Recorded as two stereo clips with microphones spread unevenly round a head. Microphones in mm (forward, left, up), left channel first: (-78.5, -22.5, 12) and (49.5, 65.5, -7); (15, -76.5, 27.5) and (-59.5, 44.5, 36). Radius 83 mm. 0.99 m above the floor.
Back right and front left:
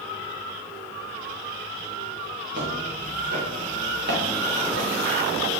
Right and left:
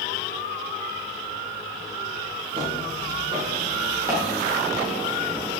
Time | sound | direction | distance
2.5 | footsteps | 60° left | 7 m